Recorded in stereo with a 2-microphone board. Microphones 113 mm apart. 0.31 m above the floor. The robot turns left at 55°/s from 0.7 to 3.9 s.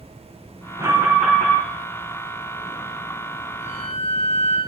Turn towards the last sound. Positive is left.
turn(degrees=15)  # may be behind; listen again after turning